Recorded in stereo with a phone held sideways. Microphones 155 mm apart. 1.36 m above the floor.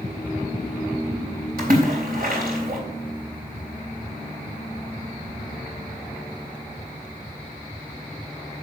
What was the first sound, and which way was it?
A splash, 75° right (ahead or behind).